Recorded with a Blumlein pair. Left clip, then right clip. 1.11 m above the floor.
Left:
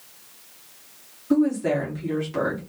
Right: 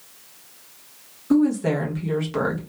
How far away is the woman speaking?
About 1.2 m.